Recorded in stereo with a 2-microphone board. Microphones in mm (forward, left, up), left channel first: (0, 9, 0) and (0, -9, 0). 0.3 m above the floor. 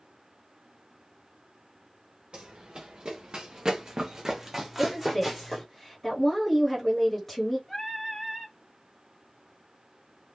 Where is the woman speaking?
10° left (ahead or behind), 1.3 m.